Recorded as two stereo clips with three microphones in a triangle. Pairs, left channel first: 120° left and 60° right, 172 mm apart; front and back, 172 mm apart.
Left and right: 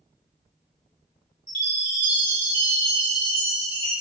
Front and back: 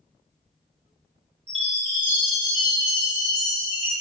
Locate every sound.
1.5 s a chime: 120° right, 1.8 m